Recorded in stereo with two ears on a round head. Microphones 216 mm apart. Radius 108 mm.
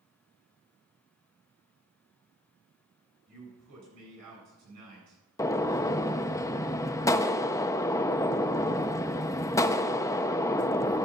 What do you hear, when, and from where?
3.3 s a man speaking: 85° right, 9 m
5.4 s a gunshot: 15° left (ahead or behind), 0.5 m